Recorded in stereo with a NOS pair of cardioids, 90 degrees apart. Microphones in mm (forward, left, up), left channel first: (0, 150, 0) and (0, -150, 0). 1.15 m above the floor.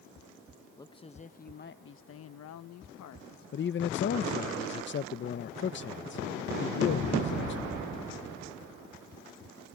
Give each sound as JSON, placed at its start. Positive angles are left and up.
{"t": 0.8, "sound": "a man speaking", "azimuth_deg": 15}
{"t": 3.5, "sound": "a man speaking", "azimuth_deg": 40}